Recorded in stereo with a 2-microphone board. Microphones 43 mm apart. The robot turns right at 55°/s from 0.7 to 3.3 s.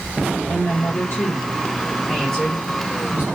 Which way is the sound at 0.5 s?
85° left.